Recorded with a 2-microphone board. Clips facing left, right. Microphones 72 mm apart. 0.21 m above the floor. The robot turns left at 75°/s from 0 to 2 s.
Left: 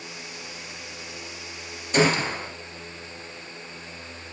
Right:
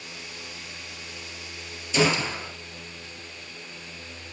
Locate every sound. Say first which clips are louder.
1.9 s a gunshot: left 2 dB; 50° left (ahead or behind), 3 m; by 2.5 s 45° left (ahead or behind), 3 m